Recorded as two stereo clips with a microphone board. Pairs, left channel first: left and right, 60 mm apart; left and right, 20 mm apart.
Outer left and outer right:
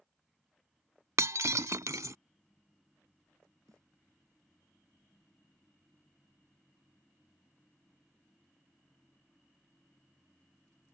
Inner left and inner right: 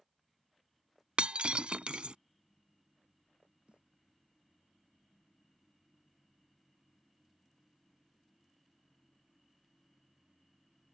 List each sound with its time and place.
1.2 s breaking glass: 75° right (ahead or behind)
3.7 s a snare drum: 80° right